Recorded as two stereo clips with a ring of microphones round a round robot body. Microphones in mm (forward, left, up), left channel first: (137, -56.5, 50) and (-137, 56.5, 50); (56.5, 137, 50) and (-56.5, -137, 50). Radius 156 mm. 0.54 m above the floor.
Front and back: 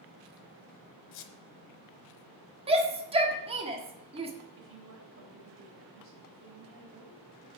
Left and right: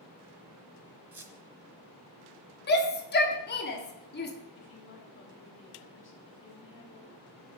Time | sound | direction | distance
1.1 | a squeak | 30° right | 1.1 m
2.7 | a shout | 100° left | 1.5 m
4.6 | a woman speaking | 115° left | 3.5 m